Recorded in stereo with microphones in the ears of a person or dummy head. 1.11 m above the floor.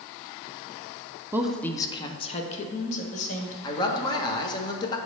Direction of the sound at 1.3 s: 10° right (ahead or behind).